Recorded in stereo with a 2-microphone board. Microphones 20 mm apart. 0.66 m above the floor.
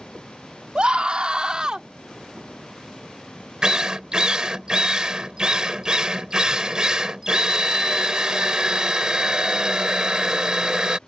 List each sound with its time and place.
0.8 s a scream: 55° right (ahead or behind); by 1.9 s 45° right (ahead or behind)
3.6 s a drill: 45° right (ahead or behind)